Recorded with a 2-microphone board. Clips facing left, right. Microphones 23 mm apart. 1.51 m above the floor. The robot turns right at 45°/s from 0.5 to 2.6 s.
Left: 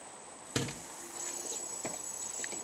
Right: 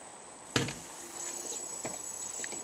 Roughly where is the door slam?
Right.